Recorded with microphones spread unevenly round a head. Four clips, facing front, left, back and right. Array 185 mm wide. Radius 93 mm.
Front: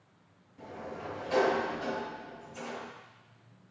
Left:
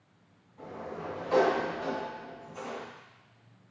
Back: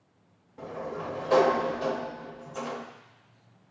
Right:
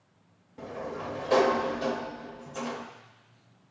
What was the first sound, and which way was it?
A sliding door, 110° right.